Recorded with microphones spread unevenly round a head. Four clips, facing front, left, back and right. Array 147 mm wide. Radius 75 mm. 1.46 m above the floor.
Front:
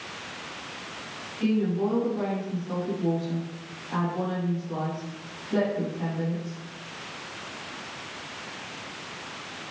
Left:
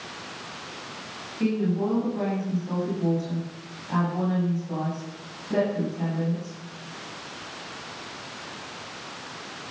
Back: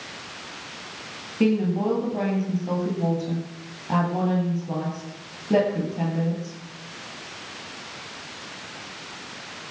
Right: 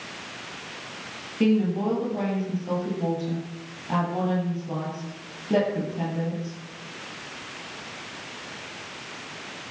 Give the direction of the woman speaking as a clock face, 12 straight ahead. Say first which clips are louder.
Right 3 dB, back 3 dB; 5 o'clock.